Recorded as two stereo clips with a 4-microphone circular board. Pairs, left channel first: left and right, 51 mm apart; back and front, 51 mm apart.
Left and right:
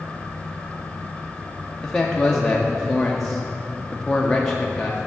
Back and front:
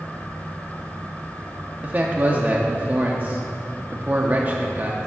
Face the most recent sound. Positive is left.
turn(degrees=15)